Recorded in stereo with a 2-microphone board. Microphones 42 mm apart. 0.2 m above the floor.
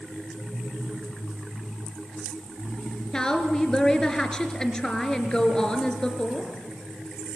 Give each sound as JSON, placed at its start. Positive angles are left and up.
{"t": 3.1, "sound": "a woman speaking", "side_deg": 20, "distance_m": 3.0}